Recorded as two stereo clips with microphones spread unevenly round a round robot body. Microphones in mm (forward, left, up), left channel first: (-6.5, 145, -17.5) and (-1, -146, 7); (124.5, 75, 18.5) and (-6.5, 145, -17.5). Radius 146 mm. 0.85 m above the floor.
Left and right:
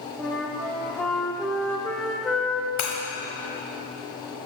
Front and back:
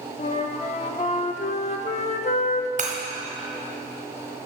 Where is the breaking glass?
110° left, 1.1 m.